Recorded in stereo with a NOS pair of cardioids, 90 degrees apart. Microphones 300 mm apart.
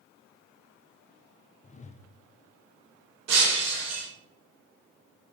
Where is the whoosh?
25° left, 0.7 m.